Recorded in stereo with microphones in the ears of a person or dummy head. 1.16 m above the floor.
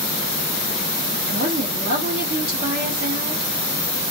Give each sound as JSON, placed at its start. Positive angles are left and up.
{"t": 1.3, "sound": "a woman speaking", "side_deg": -60, "distance_m": 2.0}